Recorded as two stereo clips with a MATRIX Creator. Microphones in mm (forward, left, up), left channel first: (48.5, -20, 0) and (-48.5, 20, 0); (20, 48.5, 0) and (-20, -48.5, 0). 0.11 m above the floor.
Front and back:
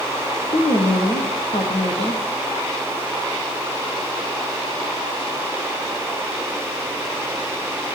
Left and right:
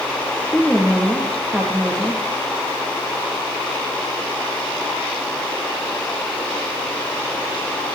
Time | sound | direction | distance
0.5 | a woman speaking | 25° right | 6 m